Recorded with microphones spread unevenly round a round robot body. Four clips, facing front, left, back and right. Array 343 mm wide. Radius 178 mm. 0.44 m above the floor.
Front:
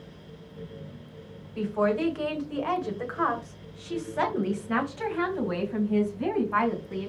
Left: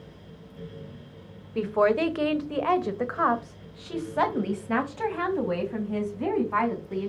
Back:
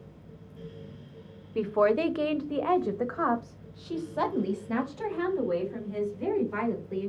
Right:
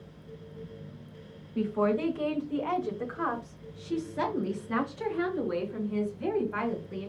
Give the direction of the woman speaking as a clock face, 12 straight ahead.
8 o'clock.